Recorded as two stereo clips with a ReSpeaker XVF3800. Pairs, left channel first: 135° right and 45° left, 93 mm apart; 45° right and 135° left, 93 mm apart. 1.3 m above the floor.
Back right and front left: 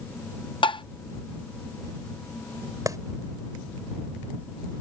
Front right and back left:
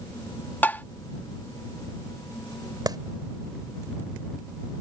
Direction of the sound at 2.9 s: 95° left.